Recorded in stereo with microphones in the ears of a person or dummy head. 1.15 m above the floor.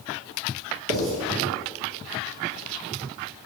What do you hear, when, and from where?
0.9 s writing: 45° right (ahead or behind), 2.5 m